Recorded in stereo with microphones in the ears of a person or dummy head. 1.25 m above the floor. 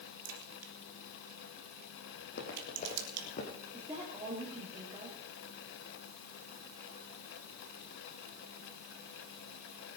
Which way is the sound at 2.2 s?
60° left (ahead or behind).